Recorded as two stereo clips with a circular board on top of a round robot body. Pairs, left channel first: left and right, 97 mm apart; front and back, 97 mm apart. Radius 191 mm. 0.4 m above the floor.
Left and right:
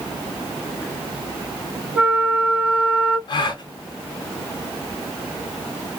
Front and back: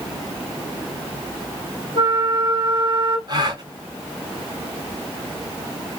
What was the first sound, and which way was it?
A flute, 165° right.